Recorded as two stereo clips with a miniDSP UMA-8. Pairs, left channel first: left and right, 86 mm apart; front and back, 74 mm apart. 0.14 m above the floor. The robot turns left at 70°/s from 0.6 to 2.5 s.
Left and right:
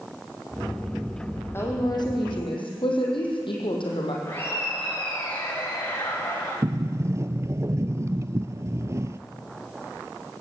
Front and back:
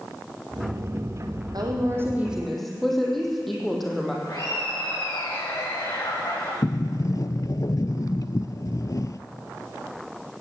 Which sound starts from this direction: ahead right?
A sliding door, at 6.6 s.